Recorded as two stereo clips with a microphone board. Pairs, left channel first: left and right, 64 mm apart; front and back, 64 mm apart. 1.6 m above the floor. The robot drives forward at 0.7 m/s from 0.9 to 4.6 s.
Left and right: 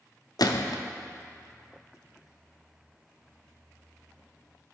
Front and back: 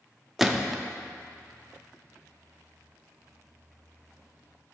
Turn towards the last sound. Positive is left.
turn(degrees=170)